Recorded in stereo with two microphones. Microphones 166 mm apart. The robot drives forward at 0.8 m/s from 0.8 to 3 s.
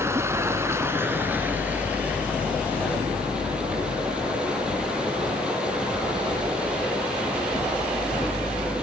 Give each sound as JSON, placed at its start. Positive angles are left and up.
{"t": 0.0, "sound": "running water", "side_deg": -15, "distance_m": 0.9}